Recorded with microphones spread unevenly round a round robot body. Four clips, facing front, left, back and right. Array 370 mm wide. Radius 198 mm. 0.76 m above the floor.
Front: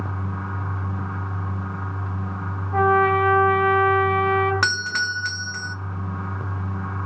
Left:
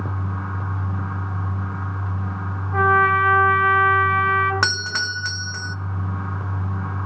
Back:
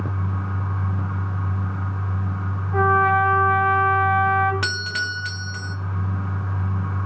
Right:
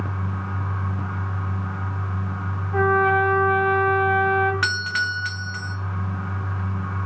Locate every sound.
2.7 s a trumpet: 10° right, 4 m
4.6 s a doorbell: 65° left, 1.5 m